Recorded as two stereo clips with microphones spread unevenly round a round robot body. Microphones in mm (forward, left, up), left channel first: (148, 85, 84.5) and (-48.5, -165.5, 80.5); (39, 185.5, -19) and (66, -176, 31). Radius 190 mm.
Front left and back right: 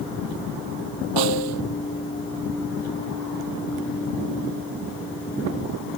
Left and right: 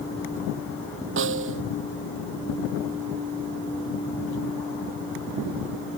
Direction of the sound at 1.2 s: 145° right.